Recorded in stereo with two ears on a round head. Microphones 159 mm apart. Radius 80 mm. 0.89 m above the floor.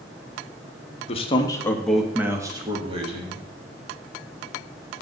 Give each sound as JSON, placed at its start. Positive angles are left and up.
{"t": 1.1, "sound": "a man speaking", "side_deg": 35, "distance_m": 1.3}